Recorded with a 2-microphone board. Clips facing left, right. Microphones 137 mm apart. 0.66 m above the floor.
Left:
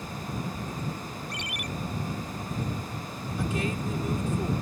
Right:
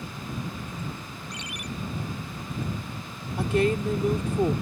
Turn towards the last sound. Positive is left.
turn(degrees=-65)  # may be behind; listen again after turning